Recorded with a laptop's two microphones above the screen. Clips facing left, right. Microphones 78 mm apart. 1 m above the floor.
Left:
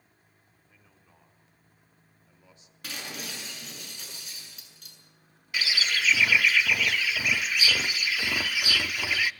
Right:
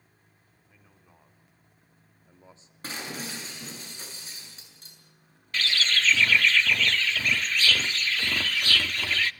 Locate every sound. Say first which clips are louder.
0.7 s a man speaking: right 3 dB; 10° right (ahead or behind), 3.5 m; by 2.7 s 30° right (ahead or behind), 2.5 m
2.8 s breaking glass: right 3 dB; 30° right (ahead or behind), 7 m
5.5 s a bird: right 1 dB; 10° left (ahead or behind), 0.5 m